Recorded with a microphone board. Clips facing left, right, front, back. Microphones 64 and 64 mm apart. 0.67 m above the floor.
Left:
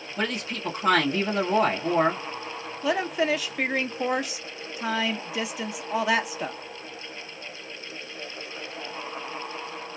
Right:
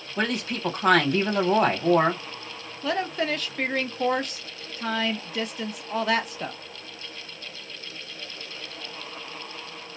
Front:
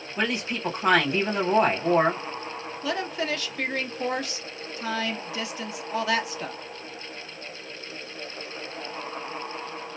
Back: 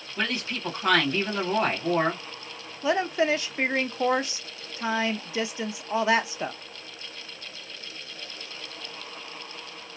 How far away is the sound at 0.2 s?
About 1.6 m.